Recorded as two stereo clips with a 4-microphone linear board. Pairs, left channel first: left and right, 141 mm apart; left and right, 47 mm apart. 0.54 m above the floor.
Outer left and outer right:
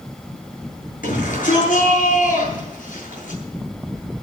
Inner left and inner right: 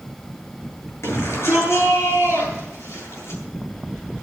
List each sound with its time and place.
1.0 s a shout: 70° left (ahead or behind), 9.5 m